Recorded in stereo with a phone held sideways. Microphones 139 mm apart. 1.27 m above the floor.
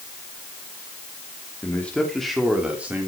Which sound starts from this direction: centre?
A man speaking, at 1.6 s.